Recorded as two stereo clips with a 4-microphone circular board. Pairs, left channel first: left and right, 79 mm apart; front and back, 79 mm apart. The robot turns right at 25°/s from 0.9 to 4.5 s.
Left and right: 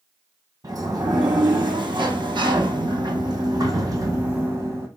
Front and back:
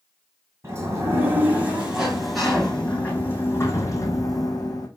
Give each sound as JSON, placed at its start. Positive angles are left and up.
{"t": 0.6, "sound": "a sliding door", "azimuth_deg": -125, "distance_m": 1.3}